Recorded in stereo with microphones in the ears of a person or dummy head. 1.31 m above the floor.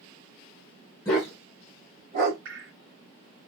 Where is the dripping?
50° right (ahead or behind), 1.9 m.